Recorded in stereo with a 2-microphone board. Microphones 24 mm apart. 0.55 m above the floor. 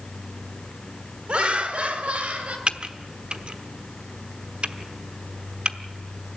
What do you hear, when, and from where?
1.3 s laughter: 50° right (ahead or behind), 2 m; by 2.6 s 70° right (ahead or behind), 3.5 m
2.7 s typing on a keyboard: 50° right (ahead or behind), 1.0 m